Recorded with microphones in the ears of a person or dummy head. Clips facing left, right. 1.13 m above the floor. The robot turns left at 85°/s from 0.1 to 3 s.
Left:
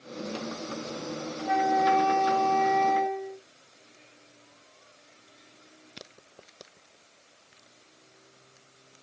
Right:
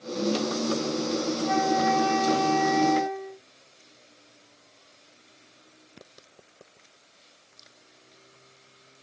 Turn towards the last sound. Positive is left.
turn(degrees=-15)  # may be behind; listen again after turning